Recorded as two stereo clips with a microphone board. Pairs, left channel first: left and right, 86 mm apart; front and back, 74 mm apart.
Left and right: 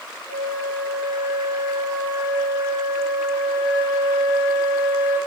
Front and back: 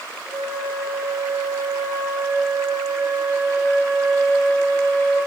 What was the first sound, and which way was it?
A flute, 50° left.